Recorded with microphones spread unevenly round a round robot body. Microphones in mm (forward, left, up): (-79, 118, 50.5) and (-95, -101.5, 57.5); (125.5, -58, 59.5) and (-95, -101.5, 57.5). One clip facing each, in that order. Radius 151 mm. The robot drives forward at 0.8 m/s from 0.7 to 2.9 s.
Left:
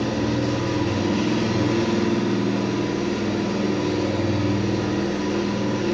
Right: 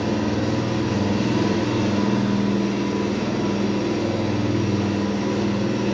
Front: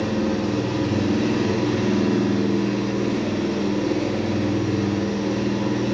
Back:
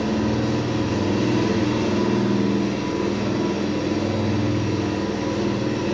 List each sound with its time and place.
0.0 s an engine running: 125° left, 2 m; by 5.9 s 150° left, 3.5 m